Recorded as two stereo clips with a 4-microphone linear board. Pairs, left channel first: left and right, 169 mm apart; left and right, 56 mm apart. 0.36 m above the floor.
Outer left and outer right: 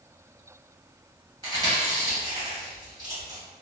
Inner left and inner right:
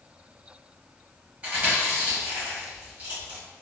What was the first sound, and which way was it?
Chewing, 25° right (ahead or behind).